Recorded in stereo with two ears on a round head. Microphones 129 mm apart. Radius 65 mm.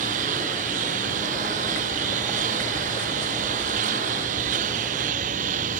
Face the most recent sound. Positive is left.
turn(degrees=-55)  # may be behind; listen again after turning